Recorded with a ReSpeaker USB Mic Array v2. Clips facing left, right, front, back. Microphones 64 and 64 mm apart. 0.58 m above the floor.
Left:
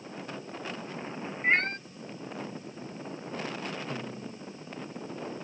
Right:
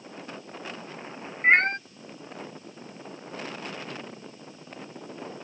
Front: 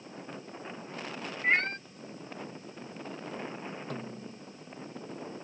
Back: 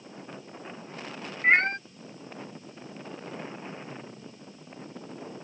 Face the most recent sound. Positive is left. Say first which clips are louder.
# left 2 dB, front 3 dB
turn(degrees=25)